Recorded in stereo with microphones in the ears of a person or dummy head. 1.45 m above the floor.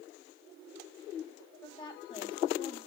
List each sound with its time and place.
1.6 s a woman speaking: 25° left (ahead or behind), 3 m; by 2.8 s 40° left (ahead or behind), 2.5 m